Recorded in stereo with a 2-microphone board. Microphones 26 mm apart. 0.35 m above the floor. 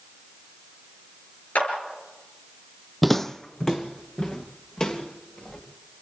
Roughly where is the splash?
No splash in this recording.